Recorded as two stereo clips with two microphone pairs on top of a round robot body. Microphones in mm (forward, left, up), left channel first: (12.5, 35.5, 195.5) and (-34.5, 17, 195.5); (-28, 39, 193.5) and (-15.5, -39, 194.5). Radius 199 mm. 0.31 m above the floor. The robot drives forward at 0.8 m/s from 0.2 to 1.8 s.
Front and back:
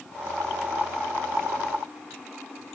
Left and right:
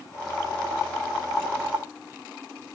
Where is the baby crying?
No baby crying in this recording.